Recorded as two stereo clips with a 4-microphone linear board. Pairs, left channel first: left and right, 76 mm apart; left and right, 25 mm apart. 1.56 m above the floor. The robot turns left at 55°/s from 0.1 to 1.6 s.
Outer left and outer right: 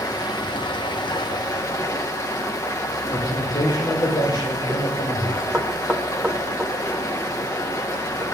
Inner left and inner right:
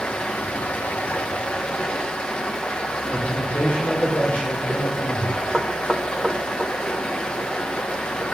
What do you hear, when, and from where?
0.0 s running water: 130° left, 1.5 m; by 8.3 s 45° left, 1.5 m
3.1 s a man speaking: 75° left (ahead or behind), 6.5 m
5.5 s knocking: 5° left (ahead or behind), 1.8 m